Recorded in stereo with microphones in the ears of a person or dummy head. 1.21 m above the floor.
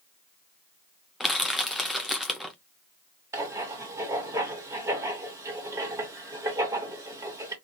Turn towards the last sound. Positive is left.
turn(degrees=-15)  # may be behind; listen again after turning